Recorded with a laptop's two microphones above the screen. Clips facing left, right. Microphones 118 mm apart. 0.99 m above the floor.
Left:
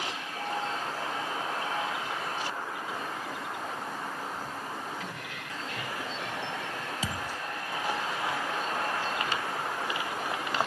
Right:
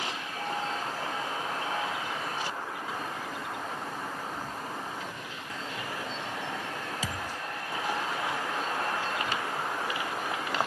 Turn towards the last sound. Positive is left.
turn(degrees=25)  # may be behind; listen again after turning